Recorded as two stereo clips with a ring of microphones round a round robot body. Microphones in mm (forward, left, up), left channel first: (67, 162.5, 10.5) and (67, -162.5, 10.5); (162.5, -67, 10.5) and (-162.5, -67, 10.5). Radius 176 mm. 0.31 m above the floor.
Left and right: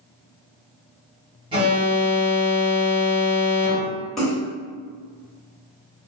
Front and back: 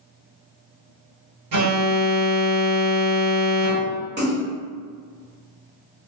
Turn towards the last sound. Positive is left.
turn(degrees=180)